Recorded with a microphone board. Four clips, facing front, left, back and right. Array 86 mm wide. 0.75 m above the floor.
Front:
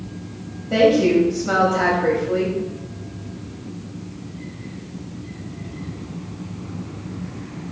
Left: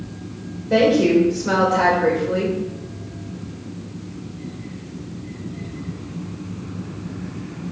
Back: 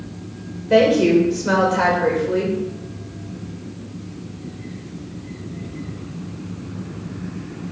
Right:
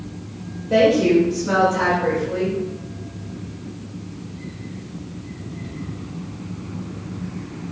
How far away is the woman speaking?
About 3 m.